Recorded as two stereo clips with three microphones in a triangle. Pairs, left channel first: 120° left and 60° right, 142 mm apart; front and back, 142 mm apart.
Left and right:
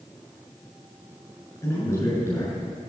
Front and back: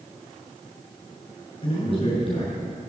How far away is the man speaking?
About 8 m.